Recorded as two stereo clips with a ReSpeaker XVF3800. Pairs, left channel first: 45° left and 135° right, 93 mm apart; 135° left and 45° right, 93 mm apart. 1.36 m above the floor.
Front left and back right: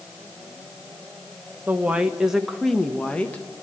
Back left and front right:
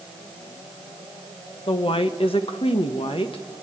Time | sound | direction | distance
1.7 | a woman speaking | 155° left | 1.4 m